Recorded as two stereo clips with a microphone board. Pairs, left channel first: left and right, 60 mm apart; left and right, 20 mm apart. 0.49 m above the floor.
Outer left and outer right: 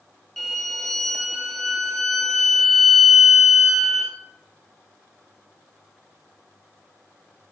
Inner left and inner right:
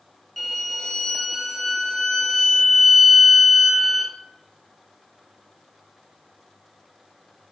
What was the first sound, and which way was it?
A violin, 5° left (ahead or behind).